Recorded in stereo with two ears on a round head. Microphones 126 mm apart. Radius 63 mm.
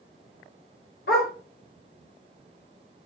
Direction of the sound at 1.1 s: 75° left (ahead or behind).